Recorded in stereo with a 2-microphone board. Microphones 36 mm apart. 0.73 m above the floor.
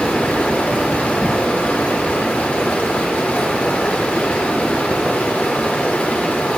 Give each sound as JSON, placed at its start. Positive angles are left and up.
{"t": 0.0, "sound": "running water", "side_deg": 50, "distance_m": 1.5}